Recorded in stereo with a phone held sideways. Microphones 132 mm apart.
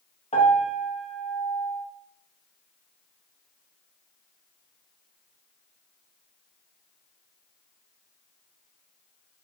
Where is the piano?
60° left (ahead or behind), 1.0 m.